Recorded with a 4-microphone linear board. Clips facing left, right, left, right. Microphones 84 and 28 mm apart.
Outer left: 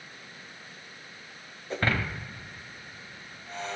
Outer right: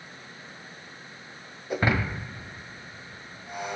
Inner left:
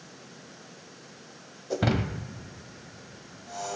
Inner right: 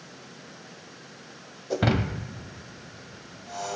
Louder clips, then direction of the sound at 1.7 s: Outer right 3 dB, inner right 2 dB; 10° right (ahead or behind).